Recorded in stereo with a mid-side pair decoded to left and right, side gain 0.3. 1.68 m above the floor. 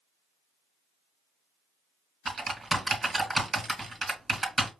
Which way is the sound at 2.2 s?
40° right.